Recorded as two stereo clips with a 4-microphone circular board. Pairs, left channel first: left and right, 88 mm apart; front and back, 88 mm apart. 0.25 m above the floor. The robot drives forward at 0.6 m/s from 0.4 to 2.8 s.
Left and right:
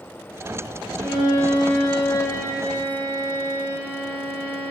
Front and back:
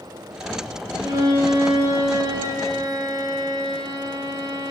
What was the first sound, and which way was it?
A violin, 140° left.